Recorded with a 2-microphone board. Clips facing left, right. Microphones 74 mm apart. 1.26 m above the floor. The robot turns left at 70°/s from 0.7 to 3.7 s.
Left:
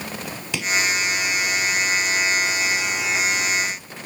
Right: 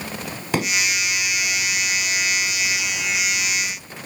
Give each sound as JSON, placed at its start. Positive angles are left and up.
{"t": 0.5, "sound": "a pop", "side_deg": -40}